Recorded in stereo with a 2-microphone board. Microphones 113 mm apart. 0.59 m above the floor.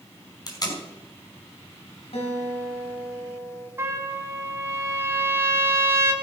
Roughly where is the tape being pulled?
Left.